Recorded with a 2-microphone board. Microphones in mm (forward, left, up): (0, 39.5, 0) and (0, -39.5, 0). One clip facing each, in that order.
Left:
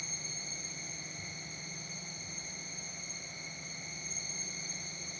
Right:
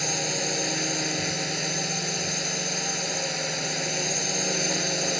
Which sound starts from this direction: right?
A drone, at 0.0 s.